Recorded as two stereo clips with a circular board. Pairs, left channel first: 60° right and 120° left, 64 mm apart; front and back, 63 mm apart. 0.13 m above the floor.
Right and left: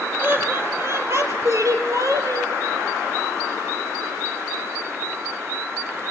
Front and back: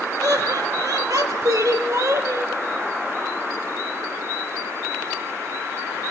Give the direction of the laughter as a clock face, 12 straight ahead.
6 o'clock.